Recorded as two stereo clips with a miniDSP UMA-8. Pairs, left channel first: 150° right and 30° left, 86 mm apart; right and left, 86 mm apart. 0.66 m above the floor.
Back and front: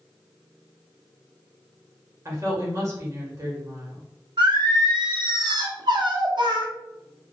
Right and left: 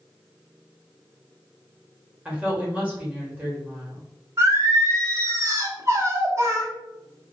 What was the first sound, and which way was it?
A woman speaking, 25° left.